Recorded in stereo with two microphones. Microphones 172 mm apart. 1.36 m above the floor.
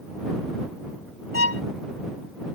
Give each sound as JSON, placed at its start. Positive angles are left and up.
{"t": 1.3, "sound": "a violin", "side_deg": -65}